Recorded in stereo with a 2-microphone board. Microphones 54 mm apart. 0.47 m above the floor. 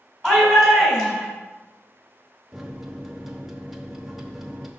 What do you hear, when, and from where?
0.2 s a shout: 10° left (ahead or behind), 3.5 m
2.5 s a microwave: 5° right (ahead or behind), 0.8 m